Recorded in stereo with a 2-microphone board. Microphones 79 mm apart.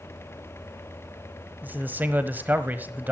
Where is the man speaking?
25° right (ahead or behind), 1.2 m.